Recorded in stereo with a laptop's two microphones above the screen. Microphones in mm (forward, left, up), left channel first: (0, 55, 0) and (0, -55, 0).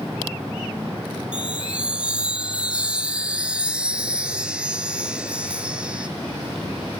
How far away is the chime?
About 1.2 m.